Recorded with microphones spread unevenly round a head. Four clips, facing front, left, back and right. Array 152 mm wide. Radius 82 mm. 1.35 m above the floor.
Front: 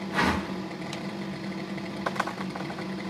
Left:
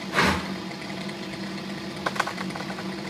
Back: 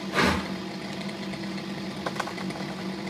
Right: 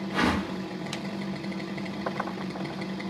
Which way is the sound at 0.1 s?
170° right.